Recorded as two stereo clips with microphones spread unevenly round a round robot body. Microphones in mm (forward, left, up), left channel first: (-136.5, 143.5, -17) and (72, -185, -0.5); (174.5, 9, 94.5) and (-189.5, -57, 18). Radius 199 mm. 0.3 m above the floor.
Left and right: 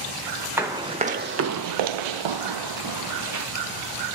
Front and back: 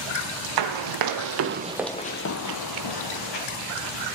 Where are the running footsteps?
140° right, 1.4 m; by 3.5 s 5° right, 1.8 m.